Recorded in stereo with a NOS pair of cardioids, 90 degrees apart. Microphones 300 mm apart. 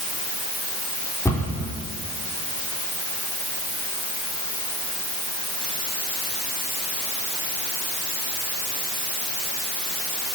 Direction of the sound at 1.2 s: 10° left.